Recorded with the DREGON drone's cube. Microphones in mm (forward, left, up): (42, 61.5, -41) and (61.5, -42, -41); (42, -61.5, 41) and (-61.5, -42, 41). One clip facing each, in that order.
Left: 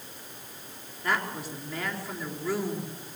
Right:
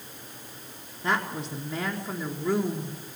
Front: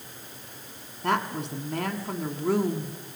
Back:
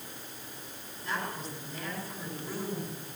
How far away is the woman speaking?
About 3.5 m.